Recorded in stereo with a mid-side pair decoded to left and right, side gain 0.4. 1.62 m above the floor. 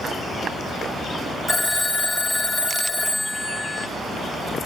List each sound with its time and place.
1.5 s a phone ringing: 25° left, 1.5 m